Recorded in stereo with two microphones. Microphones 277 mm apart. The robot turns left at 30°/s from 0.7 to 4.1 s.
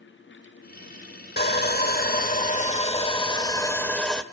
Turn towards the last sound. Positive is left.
turn(degrees=5)